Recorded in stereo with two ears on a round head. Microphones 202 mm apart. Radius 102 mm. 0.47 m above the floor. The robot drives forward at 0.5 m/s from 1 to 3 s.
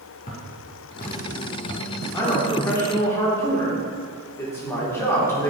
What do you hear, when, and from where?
0.3 s footsteps: 35° left (ahead or behind), 2.5 m; by 1.9 s 55° left (ahead or behind), 1.3 m
2.1 s a man speaking: 15° left (ahead or behind), 1.3 m; by 5.5 s 10° left (ahead or behind), 1.5 m